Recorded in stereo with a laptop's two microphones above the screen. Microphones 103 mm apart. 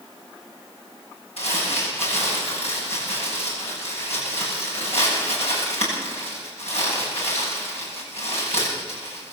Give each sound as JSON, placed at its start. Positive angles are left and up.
{"t": 1.4, "sound": "crumpling", "side_deg": 80, "distance_m": 9.5}